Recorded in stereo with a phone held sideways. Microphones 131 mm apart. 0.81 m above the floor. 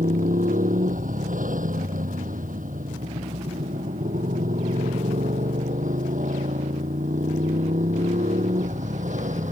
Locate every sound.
0.0 s a motorcycle: 85° right; by 9.5 s 70° right (ahead or behind)